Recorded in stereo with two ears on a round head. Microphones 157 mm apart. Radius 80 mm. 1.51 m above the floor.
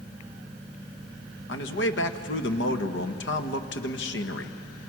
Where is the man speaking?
70° left (ahead or behind), 1.5 m.